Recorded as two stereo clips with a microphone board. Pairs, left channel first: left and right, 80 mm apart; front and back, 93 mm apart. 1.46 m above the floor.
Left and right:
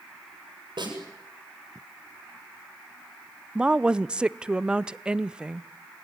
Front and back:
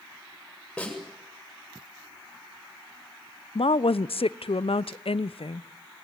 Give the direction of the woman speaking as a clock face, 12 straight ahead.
12 o'clock.